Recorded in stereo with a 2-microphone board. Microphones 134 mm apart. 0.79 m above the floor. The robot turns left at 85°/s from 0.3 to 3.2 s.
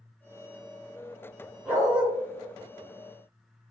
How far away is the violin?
I don't hear a violin.